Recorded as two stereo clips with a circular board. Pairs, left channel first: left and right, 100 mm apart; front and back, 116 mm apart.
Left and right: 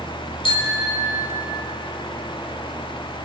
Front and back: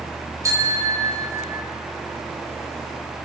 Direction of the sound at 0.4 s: 120° left.